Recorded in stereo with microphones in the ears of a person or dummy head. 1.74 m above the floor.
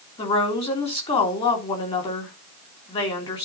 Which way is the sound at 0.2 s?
35° left (ahead or behind).